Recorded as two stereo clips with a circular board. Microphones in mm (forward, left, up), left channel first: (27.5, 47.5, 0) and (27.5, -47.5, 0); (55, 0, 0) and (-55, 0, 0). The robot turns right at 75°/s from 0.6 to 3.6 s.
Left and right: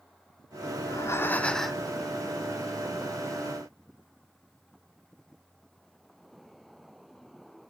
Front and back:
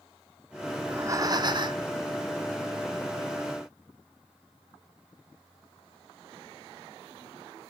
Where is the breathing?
115° left, 0.5 m; by 1.9 s 165° right, 0.5 m.